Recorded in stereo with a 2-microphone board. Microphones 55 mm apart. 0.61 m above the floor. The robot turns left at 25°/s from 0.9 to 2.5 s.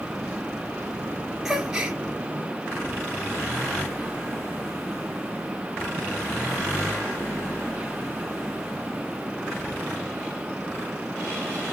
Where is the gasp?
5° right (ahead or behind), 2 m; by 2.0 s 15° right (ahead or behind), 2 m.